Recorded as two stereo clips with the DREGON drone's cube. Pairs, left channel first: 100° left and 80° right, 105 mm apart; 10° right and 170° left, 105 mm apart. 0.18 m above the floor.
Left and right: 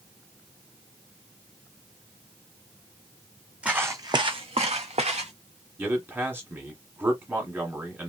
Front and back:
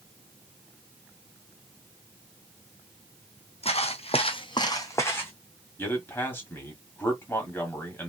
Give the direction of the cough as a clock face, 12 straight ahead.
No cough in this recording.